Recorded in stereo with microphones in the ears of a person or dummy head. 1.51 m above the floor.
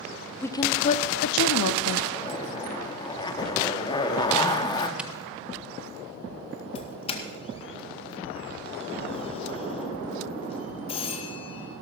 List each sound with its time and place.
0.4 s a woman speaking: 10° left (ahead or behind), 0.7 m; by 2.0 s 70° left (ahead or behind), 0.9 m
2.1 s a zipper: 25° left (ahead or behind), 1.6 m
5.0 s a camera shutter: 5° right (ahead or behind), 0.7 m
6.8 s a doorbell: 35° left (ahead or behind), 2.0 m